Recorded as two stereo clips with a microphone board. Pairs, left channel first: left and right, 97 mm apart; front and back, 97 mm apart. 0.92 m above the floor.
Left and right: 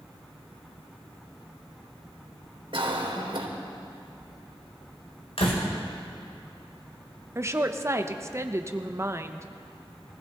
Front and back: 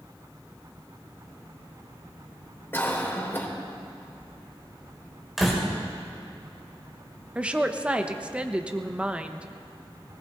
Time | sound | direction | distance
2.7 | a cough | 65° right | 2.5 m
5.4 | a door slam | 90° left | 3 m
7.3 | a woman speaking | 115° right | 0.8 m